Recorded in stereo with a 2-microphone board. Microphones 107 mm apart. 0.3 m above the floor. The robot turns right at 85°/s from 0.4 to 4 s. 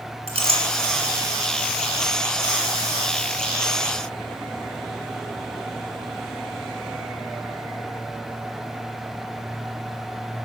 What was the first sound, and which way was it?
A clink, 70° right (ahead or behind).